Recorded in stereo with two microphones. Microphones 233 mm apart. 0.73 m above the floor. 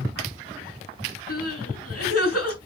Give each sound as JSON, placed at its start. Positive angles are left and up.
{"t": 1.3, "sound": "crying", "side_deg": 80, "distance_m": 4.5}